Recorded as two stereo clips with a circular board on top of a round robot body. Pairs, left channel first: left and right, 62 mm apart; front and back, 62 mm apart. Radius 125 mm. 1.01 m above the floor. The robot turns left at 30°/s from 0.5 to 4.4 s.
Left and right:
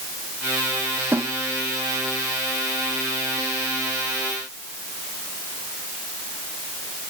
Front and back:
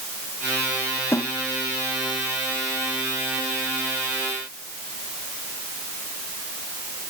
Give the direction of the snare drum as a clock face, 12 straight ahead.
1 o'clock.